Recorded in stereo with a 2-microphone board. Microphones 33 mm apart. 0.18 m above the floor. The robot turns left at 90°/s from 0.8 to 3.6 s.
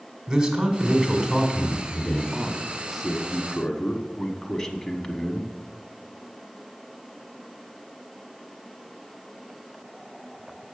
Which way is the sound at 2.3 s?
20° right (ahead or behind).